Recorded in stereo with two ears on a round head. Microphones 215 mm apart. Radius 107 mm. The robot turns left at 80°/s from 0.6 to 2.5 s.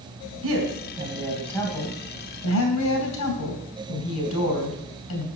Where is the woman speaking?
115° right, 3 m; by 5.3 s 90° left, 3 m.